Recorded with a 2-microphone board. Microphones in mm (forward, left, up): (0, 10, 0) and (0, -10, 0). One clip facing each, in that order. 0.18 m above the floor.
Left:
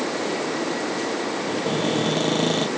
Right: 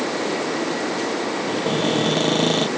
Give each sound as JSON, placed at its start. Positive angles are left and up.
{"t": 1.5, "sound": "a cupboard door", "side_deg": -25}